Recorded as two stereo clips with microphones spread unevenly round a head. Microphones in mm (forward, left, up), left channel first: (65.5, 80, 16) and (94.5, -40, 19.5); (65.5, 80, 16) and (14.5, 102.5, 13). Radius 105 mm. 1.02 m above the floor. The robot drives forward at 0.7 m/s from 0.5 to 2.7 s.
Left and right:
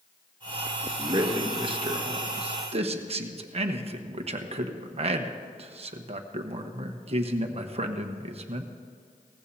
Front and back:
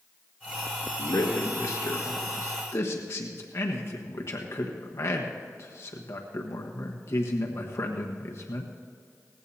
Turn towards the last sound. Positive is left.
turn(degrees=-60)